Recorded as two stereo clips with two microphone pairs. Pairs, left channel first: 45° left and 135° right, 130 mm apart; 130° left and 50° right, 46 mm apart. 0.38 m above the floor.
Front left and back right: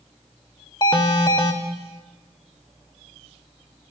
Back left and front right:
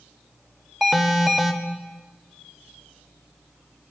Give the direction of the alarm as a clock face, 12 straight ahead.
11 o'clock.